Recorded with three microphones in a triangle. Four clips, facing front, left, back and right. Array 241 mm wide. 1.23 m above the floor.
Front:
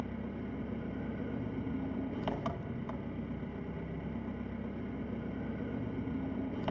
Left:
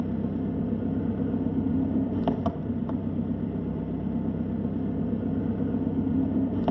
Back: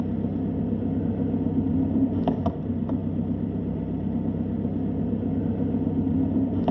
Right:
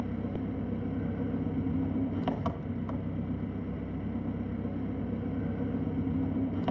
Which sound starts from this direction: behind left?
An engine running, at 0.0 s.